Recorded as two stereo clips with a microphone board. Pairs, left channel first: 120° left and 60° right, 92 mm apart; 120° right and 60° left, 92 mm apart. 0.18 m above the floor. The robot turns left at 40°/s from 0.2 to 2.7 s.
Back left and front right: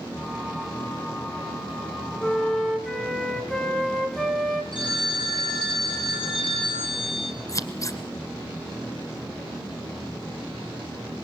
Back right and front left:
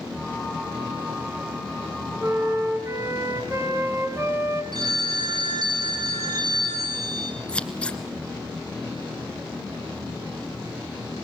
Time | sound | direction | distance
2.2 | a flute | 55° left | 1.9 m
4.7 | a phone ringing | 105° left | 4 m
7.5 | scissors | 165° left | 1.3 m